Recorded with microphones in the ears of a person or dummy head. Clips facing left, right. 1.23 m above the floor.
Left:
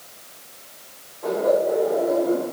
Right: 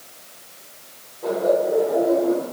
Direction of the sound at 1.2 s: 15° right (ahead or behind).